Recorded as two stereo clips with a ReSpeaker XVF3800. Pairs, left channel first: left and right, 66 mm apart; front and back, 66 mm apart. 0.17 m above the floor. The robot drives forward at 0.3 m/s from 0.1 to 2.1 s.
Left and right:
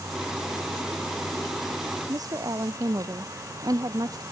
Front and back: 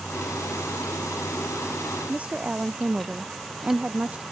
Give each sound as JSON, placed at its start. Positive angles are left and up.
{"t": 2.1, "sound": "a woman speaking", "azimuth_deg": -110}